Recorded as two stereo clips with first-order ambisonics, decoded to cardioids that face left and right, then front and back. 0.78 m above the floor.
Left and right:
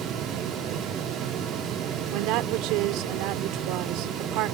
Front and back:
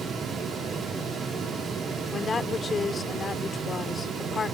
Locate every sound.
2.1 s a woman speaking: 75° right